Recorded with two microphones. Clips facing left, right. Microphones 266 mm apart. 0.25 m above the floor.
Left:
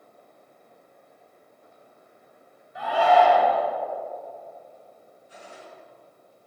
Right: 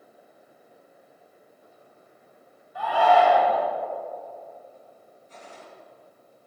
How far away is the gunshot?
About 1.3 m.